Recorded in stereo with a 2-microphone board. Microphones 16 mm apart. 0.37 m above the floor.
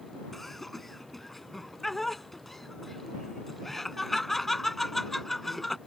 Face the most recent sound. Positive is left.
turn(degrees=15)  # may be behind; listen again after turning